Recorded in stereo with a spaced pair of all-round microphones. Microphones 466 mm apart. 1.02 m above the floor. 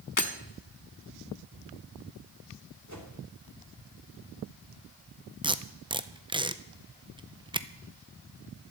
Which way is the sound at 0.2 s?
40° left (ahead or behind).